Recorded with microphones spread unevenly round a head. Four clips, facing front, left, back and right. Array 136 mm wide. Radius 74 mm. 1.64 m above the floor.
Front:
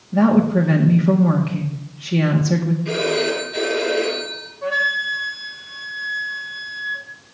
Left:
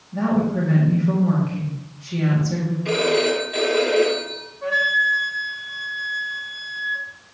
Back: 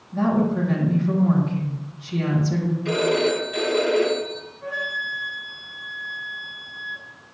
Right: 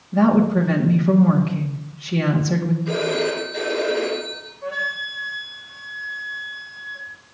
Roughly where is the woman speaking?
Ahead right.